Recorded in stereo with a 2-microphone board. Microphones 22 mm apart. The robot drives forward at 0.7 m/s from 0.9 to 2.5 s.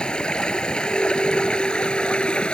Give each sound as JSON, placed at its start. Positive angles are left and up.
{"t": 0.0, "sound": "running water", "side_deg": 50}